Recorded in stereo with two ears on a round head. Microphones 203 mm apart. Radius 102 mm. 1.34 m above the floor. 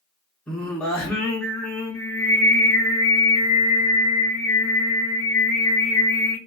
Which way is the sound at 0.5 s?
5° left (ahead or behind).